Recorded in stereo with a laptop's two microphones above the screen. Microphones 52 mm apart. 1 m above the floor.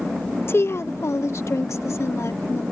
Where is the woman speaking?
50° left (ahead or behind); by 2.6 s 75° left (ahead or behind).